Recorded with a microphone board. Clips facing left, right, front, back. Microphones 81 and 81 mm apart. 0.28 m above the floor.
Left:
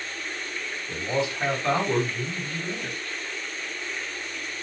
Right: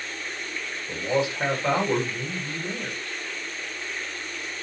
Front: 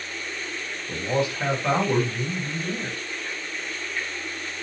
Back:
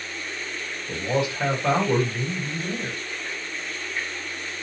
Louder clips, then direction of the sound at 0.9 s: Right 2 dB, even; 125° right.